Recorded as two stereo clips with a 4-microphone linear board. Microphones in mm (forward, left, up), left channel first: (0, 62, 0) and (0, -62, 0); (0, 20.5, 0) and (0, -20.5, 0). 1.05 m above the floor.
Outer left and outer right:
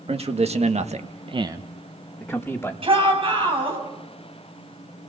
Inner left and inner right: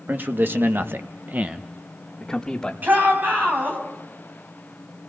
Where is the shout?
50° right (ahead or behind), 6 m.